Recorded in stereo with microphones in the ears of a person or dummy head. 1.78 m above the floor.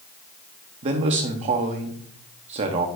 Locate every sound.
0.8 s a man speaking: 35° right (ahead or behind), 0.7 m